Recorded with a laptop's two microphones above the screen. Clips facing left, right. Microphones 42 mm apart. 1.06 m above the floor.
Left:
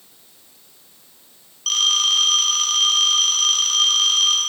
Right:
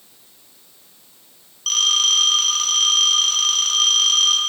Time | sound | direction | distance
1.7 | a phone ringing | centre (ahead or behind) | 4 m